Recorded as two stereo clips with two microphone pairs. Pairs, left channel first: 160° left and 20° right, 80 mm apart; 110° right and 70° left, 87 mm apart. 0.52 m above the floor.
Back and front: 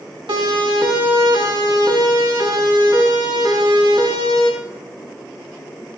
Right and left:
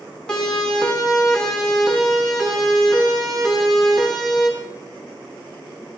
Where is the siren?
30° right, 5.5 m; by 4.5 s 20° right, 9 m.